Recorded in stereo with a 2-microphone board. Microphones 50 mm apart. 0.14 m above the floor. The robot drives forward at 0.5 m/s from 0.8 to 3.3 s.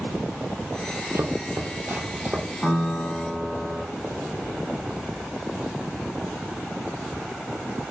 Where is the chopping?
65° right (ahead or behind), 0.7 m; by 2.5 s 35° right (ahead or behind), 1.1 m.